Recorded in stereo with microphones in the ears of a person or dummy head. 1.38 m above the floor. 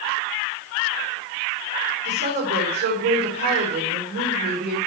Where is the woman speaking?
55° right (ahead or behind), 4 m.